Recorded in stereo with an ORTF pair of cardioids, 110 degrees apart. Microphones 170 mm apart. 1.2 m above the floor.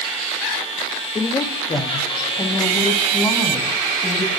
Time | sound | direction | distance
1.1 | a woman speaking | 30° left | 1.9 m